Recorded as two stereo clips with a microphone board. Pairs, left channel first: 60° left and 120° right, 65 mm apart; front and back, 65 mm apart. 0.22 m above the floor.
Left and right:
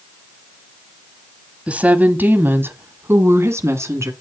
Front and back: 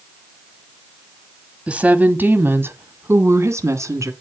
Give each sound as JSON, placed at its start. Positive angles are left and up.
{"t": 1.7, "sound": "a woman speaking", "azimuth_deg": -145, "distance_m": 1.2}